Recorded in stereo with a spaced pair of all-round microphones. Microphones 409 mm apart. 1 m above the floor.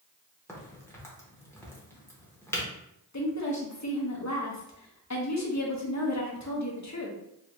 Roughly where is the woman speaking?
Left.